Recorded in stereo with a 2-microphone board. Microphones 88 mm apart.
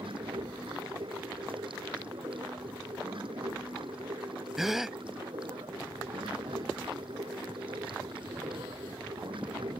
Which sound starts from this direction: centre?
A gasp, at 4.6 s.